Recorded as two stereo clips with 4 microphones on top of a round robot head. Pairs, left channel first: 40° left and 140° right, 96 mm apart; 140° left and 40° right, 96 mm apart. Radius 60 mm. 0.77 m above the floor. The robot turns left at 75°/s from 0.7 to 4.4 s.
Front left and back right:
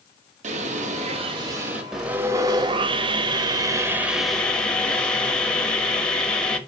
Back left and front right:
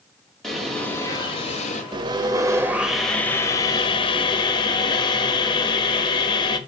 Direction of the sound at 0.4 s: 135° right.